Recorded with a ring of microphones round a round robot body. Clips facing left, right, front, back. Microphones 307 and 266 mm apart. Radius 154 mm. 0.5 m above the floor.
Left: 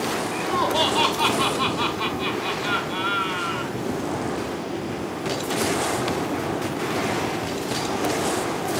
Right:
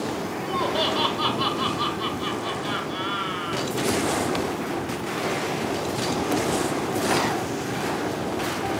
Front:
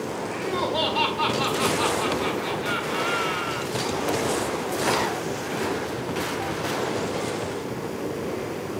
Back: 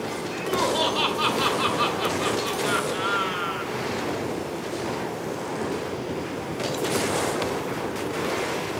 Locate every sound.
0.3 s laughter: 90° left, 5.5 m